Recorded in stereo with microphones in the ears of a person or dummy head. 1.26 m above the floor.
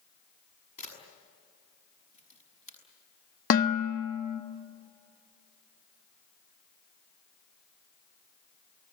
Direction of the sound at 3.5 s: 50° left (ahead or behind).